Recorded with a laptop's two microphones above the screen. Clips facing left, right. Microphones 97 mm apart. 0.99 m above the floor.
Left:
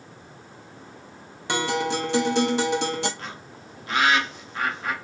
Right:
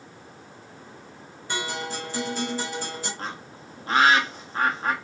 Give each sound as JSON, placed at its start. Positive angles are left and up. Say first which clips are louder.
{"t": 1.5, "sound": "a guitar", "louder": "left 7 dB", "side_deg": 75, "distance_m": 0.9}
{"t": 3.2, "sound": "a bird", "louder": "right 3 dB", "side_deg": -35, "distance_m": 1.1}